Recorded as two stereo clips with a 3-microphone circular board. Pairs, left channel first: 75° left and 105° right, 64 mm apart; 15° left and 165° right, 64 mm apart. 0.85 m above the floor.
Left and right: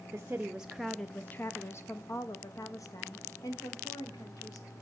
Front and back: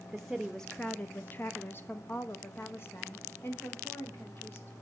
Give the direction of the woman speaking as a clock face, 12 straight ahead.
3 o'clock.